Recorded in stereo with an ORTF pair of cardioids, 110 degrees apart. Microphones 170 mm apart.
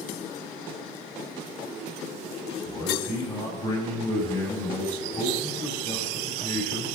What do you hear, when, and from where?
2.6 s a man speaking: 20° left, 6.5 m